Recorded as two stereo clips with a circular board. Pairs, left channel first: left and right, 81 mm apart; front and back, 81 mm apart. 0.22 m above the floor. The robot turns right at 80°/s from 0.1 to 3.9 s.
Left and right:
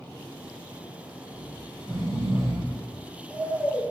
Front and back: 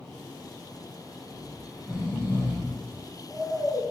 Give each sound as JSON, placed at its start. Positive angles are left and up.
{"t": 1.3, "sound": "snoring", "azimuth_deg": -140, "distance_m": 3.0}